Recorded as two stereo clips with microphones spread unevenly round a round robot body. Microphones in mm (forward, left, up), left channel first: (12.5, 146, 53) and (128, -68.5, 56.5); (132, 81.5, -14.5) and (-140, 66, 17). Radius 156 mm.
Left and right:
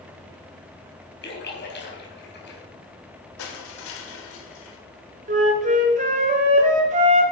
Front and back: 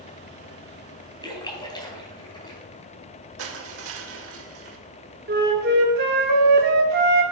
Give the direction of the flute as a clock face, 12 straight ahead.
4 o'clock.